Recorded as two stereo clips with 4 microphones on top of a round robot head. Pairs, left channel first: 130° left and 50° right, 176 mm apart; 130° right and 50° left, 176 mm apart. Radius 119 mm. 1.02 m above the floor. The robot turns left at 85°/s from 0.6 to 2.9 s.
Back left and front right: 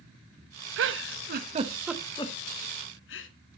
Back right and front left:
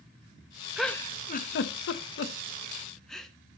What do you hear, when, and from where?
0.8 s a giggle: 35° right, 0.8 m; by 3.3 s 140° left, 0.8 m